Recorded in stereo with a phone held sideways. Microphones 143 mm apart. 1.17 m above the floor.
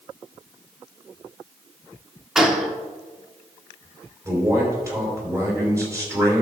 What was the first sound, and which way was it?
A gunshot, 5° right (ahead or behind).